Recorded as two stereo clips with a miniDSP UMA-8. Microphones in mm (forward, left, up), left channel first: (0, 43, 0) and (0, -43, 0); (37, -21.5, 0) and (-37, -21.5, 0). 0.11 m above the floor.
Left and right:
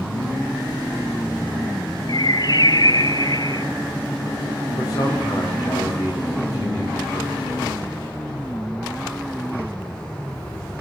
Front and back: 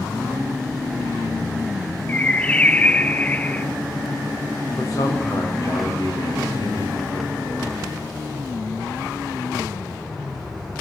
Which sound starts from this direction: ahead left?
A man speaking, at 4.8 s.